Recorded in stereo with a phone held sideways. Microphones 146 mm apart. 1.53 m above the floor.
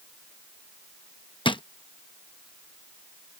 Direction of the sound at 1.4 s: 35° left (ahead or behind).